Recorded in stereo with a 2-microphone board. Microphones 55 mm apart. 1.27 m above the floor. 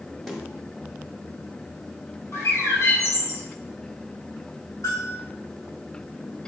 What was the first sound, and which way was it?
A snare drum, 5° left (ahead or behind).